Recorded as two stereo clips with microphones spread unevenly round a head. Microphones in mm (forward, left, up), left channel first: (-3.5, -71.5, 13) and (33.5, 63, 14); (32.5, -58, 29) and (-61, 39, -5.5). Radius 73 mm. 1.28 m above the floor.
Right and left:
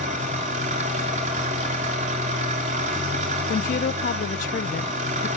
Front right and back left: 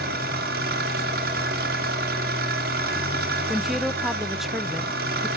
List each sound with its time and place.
0.0 s an engine running: 120° left, 3.5 m
3.5 s a woman speaking: 140° right, 0.5 m